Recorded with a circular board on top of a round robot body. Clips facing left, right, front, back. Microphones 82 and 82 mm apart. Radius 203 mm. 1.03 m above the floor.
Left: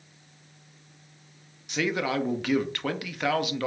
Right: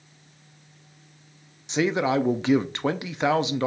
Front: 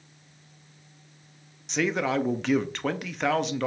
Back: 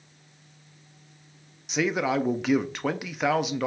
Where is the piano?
I don't hear a piano.